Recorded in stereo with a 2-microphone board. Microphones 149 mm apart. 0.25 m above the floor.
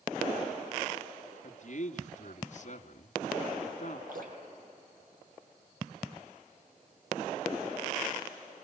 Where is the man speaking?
55° left (ahead or behind), 2 m.